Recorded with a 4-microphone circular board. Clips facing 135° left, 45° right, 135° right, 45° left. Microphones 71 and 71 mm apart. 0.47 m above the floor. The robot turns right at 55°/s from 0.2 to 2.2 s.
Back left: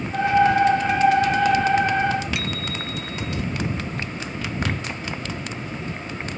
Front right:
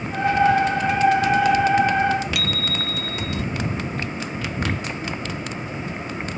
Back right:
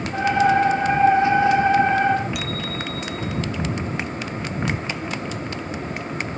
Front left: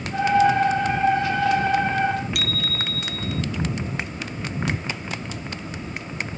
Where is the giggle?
No giggle in this recording.